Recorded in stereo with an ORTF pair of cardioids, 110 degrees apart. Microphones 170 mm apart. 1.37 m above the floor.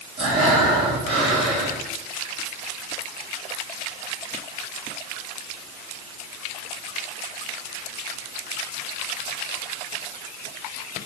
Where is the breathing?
35° right, 3.5 m.